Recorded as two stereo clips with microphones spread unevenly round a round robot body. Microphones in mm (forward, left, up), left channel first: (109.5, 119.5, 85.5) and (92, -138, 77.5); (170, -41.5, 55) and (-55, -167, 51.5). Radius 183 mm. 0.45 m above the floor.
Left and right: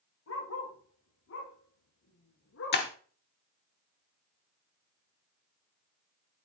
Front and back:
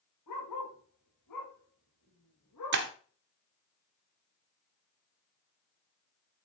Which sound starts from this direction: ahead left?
A dog barking, at 0.3 s.